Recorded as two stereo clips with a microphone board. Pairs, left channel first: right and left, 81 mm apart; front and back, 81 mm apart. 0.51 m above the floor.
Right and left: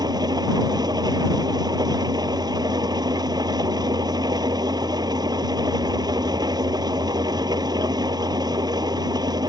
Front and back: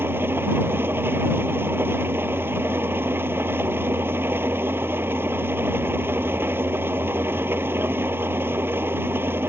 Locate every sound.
0.0 s an engine running: 120° left